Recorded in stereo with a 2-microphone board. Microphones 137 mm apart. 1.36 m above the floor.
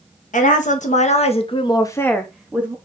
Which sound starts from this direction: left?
A woman speaking, at 0.3 s.